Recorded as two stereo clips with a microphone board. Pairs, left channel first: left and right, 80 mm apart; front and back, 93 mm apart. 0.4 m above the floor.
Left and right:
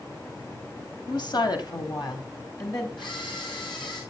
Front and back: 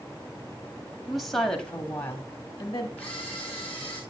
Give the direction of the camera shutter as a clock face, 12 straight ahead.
10 o'clock.